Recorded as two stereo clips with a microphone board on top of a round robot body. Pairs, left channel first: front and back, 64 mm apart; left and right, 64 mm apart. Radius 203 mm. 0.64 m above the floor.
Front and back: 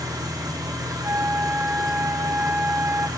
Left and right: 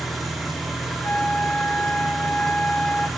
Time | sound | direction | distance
0.0 | an engine running | straight behind | 1.5 m
1.0 | a flute | 145° left | 0.7 m